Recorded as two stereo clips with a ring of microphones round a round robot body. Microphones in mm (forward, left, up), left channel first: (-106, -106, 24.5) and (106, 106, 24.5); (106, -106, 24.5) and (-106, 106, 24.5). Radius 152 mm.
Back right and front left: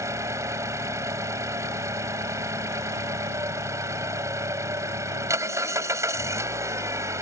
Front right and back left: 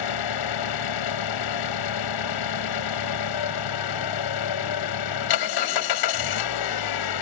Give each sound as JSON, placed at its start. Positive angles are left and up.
{"t": 0.0, "sound": "an engine running", "azimuth_deg": -35}